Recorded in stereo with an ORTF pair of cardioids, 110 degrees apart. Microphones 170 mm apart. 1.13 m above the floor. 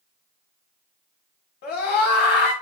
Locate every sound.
1.6 s a scream: 70° left, 3 m